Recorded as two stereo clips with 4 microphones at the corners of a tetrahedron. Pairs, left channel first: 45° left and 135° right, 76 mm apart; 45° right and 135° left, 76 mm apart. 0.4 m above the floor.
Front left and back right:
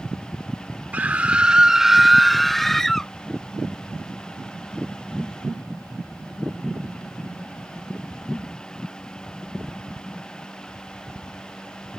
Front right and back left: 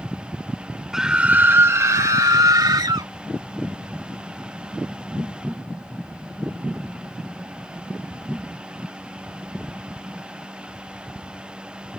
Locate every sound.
0.9 s a scream: 150° right; by 3.1 s 130° left